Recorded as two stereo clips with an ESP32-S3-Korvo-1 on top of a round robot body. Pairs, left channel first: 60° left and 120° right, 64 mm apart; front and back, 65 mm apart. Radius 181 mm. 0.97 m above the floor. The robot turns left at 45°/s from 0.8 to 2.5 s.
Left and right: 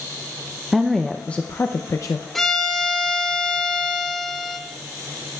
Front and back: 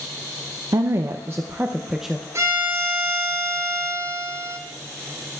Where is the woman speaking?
155° left, 0.6 m; by 2.2 s 90° left, 0.6 m.